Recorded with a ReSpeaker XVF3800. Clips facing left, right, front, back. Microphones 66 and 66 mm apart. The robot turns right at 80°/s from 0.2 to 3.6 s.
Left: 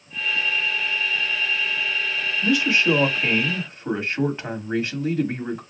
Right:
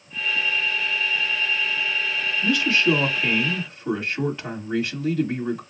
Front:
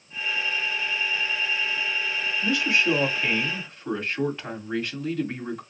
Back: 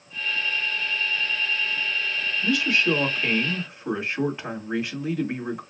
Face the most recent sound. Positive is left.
turn(degrees=115)